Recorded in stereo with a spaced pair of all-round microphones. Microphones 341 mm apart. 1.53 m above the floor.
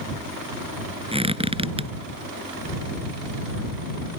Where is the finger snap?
No finger snap in this recording.